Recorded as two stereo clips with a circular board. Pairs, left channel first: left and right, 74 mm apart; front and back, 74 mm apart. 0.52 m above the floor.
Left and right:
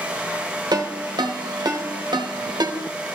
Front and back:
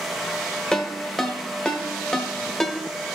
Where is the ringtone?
85° right, 1.3 m.